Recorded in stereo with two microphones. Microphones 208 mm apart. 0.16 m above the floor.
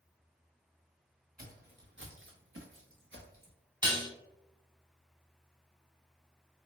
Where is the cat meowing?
No cat meowing in this recording.